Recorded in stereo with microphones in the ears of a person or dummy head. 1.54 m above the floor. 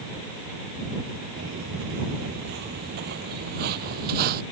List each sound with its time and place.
1.4 s footsteps: 50° right (ahead or behind)